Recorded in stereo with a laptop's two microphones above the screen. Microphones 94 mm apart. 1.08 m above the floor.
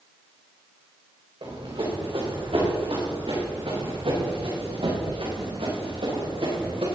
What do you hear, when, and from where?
1.4 s running footsteps: 75° right (ahead or behind), 6.5 m; by 6.8 s 80° right, 8.5 m